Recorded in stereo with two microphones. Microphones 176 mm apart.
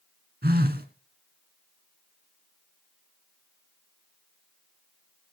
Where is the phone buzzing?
65° right (ahead or behind), 1.5 m.